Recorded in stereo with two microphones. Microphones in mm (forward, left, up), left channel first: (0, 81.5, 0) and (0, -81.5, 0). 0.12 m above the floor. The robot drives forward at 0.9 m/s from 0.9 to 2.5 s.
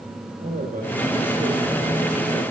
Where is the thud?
I don't hear a thud.